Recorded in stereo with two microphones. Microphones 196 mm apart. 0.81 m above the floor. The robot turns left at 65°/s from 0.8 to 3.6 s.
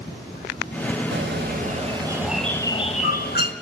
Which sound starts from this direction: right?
A bird, at 1.1 s.